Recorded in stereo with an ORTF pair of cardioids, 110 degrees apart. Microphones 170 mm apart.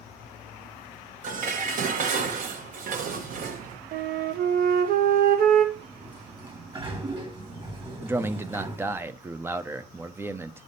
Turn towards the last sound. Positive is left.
turn(degrees=-15)